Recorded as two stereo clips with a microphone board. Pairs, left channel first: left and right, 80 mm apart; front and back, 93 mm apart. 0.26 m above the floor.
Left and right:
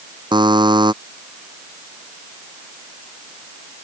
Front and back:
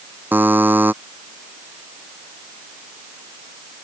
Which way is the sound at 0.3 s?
110° right.